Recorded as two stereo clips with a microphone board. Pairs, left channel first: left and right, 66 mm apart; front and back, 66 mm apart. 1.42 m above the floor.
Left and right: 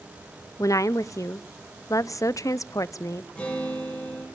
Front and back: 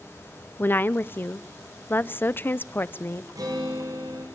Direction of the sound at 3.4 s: 160° left.